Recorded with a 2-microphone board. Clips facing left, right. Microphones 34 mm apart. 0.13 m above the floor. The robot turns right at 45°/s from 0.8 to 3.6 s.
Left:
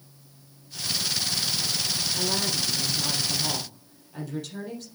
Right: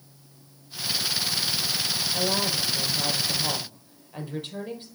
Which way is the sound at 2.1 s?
90° right.